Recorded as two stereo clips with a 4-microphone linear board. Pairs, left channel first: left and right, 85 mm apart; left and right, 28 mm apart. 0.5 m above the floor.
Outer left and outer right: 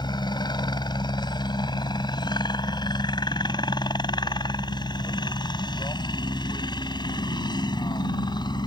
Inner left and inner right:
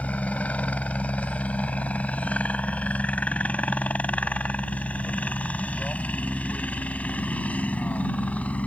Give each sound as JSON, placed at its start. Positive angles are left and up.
{"t": 0.0, "sound": "a helicopter", "side_deg": 55}